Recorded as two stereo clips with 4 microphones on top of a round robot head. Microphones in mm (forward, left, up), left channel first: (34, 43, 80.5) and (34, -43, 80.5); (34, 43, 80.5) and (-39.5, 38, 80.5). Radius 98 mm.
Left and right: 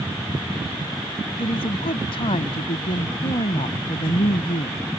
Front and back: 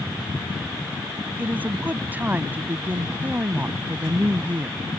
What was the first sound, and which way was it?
A woman speaking, 115° left.